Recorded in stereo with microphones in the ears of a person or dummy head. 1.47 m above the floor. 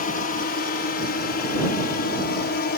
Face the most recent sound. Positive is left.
turn(degrees=55)  # may be behind; listen again after turning